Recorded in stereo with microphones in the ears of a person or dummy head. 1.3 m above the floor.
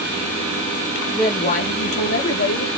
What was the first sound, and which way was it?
A woman speaking, 5° right (ahead or behind).